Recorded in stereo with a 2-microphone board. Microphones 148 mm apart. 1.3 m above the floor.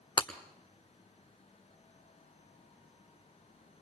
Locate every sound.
0.2 s breaking glass: 35° left (ahead or behind), 1.1 m